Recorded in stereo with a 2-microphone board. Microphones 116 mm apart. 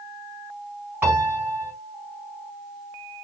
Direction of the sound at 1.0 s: 20° right (ahead or behind).